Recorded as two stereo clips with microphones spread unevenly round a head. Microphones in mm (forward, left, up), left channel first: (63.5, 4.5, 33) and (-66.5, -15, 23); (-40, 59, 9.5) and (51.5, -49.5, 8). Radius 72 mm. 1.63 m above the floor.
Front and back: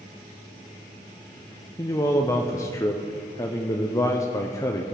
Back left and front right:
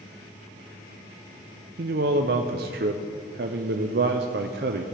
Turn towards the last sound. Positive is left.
turn(degrees=-55)